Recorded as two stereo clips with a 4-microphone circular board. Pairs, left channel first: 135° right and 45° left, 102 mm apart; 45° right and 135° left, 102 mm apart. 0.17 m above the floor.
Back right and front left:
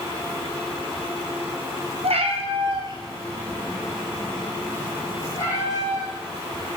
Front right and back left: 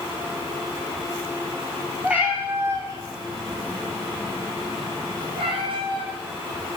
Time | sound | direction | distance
2.0 | a cat meowing | 55° left | 1.2 m